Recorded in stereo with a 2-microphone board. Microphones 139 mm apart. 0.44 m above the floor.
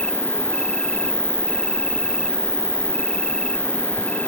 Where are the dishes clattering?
I don't hear dishes clattering.